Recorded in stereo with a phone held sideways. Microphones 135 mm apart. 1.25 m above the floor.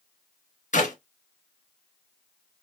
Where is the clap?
65° left (ahead or behind), 0.7 m.